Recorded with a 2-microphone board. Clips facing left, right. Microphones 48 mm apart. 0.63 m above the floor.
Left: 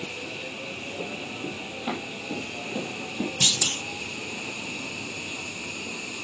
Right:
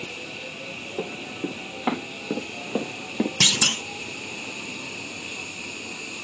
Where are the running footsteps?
80° right, 3.5 m; by 3.3 s 70° right (ahead or behind), 2 m.